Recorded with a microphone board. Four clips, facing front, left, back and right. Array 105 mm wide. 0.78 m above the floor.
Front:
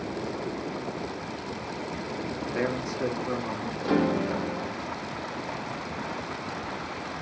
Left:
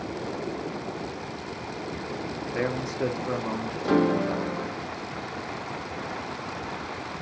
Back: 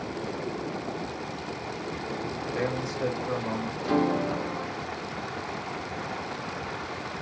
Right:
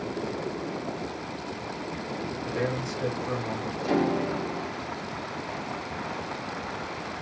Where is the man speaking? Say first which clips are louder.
Left 1 dB, front 1 dB; 40° left, 0.6 m; by 3.7 s 80° left, 1.1 m.